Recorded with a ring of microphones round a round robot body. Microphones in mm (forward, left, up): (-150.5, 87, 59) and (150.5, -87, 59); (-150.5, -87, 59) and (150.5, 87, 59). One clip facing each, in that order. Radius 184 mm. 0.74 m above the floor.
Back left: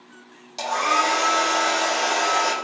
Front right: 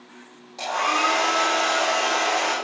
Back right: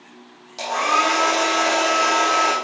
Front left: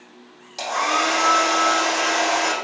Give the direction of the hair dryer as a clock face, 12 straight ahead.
8 o'clock.